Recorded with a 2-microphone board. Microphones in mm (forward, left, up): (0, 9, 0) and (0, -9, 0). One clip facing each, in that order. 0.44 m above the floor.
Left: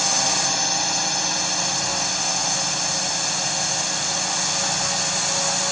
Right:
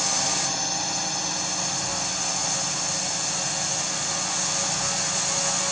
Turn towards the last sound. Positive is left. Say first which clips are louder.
# left 4 dB
turn(degrees=25)  # may be behind; listen again after turning